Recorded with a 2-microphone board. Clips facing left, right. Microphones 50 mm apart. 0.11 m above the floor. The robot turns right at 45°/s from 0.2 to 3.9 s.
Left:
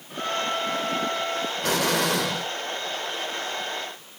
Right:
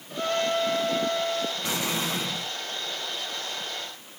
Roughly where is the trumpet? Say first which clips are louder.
Right 1 dB; centre.